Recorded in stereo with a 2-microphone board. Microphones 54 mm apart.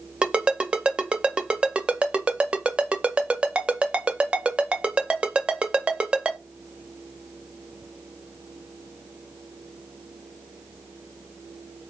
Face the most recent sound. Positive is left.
turn(degrees=-20)  # may be behind; listen again after turning